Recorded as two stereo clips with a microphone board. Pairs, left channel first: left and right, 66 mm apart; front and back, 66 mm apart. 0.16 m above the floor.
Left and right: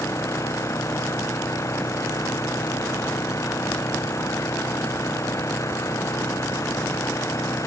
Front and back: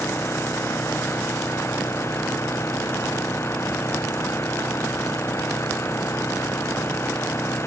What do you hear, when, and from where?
0.0 s an engine running: 50° left